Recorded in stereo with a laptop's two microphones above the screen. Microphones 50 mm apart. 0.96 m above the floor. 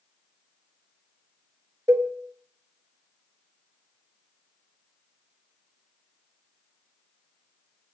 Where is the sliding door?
I don't hear a sliding door.